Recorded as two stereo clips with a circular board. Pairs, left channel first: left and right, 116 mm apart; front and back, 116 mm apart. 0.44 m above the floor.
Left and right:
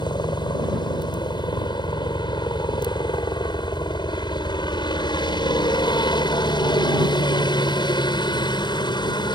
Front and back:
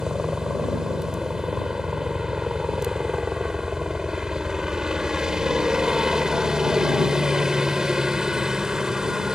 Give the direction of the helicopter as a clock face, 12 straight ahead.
9 o'clock.